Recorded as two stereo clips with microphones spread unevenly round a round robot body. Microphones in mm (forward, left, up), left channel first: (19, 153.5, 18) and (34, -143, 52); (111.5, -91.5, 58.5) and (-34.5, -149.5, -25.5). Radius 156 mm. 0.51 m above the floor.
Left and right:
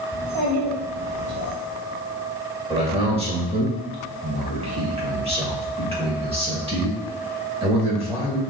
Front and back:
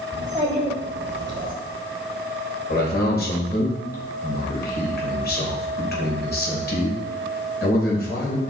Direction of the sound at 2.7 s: 15° right.